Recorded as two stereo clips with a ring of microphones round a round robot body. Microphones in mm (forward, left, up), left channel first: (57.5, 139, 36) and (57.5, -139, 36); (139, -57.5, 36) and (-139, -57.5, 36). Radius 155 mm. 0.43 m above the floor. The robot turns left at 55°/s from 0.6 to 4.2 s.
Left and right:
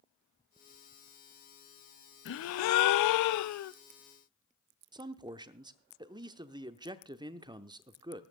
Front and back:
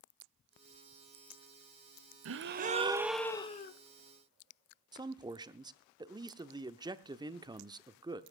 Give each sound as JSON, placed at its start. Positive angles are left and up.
{"t": 2.2, "sound": "a gasp", "azimuth_deg": 140, "distance_m": 0.6}
{"t": 4.9, "sound": "a man speaking", "azimuth_deg": -135, "distance_m": 0.7}